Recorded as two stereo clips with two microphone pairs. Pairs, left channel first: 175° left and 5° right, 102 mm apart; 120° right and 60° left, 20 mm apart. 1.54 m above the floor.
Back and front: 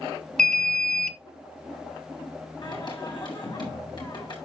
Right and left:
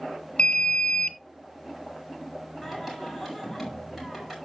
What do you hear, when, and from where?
0.4 s an alarm: 100° right, 0.7 m
2.6 s singing: 135° left, 5 m